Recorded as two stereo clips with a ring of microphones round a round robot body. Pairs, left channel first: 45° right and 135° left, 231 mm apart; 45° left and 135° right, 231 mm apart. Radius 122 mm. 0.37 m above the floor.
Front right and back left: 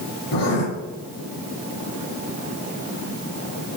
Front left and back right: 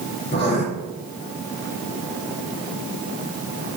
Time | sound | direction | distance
0.3 | writing | 20° right | 3.5 m